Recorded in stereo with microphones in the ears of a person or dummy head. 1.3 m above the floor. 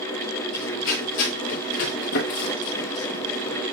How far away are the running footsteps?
About 3.5 m.